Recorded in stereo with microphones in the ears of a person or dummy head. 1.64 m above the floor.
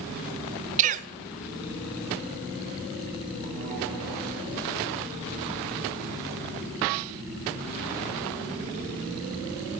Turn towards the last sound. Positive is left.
turn(degrees=-45)  # may be behind; listen again after turning